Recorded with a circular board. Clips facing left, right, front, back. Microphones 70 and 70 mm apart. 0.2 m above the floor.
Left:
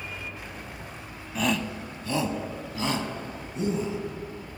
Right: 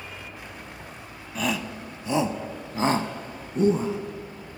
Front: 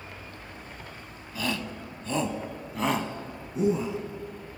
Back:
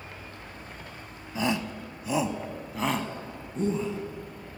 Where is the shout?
175° left, 1.0 m; by 4.0 s 75° right, 1.5 m.